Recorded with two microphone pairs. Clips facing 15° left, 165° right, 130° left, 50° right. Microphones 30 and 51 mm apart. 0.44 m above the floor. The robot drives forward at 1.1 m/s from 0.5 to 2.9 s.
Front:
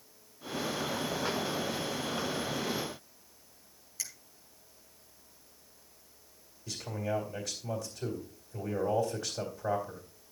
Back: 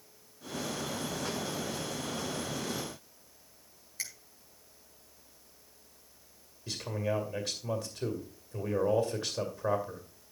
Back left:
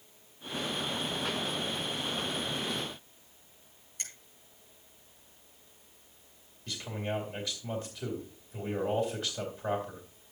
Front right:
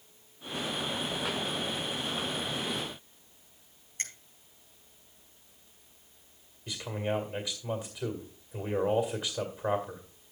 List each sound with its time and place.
4.0 s a finger snap: 105° right, 4 m
6.7 s a man speaking: 125° right, 2 m